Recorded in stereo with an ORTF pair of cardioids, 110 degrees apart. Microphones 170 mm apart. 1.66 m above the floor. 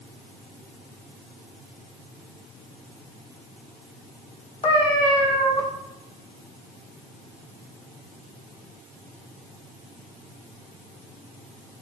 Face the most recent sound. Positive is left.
turn(degrees=30)